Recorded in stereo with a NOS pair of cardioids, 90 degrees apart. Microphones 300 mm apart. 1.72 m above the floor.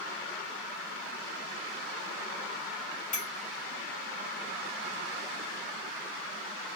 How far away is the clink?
About 1.8 m.